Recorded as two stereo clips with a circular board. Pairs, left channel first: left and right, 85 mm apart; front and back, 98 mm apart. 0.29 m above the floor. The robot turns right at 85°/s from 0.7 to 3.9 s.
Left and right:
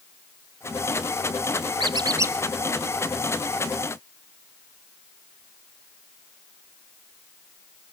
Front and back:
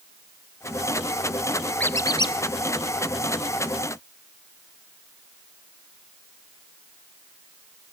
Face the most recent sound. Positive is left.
turn(degrees=105)